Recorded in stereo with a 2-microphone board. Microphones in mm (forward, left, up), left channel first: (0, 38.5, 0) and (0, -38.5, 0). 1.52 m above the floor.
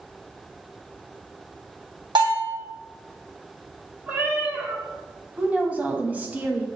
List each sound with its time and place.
2.1 s a bell: 85° right, 2.5 m
4.1 s a cat meowing: 25° right (ahead or behind), 1.4 m
5.4 s a woman speaking: 20° right (ahead or behind), 1.0 m